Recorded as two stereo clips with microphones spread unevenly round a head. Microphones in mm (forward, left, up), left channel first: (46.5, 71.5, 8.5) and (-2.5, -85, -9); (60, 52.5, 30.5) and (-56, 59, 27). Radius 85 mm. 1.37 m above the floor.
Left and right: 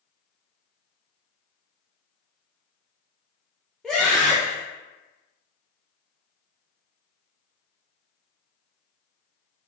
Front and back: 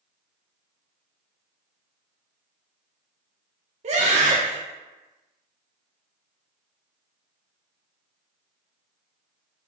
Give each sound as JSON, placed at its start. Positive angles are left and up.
{"t": 3.8, "sound": "a scream", "azimuth_deg": 160, "distance_m": 0.7}